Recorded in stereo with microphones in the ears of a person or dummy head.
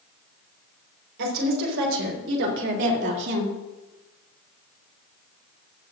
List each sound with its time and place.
1.2 s a woman speaking: 80° right, 4.5 m; by 3.5 s 70° right (ahead or behind), 2 m